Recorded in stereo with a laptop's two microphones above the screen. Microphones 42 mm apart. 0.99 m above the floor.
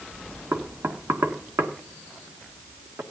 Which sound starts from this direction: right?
Knocking, at 0.5 s.